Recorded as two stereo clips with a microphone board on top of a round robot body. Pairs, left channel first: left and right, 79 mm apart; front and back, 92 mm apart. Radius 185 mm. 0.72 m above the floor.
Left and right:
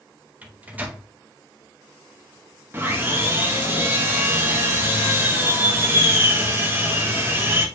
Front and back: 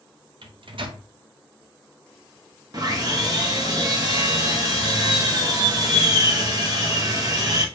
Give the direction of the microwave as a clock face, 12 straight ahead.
5 o'clock.